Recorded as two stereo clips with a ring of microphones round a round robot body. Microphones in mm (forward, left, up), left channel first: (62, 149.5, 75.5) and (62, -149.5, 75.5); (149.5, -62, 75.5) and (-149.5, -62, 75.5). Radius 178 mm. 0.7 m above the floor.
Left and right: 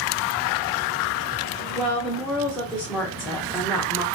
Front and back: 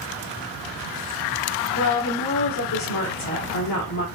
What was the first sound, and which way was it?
A woman speaking, straight ahead.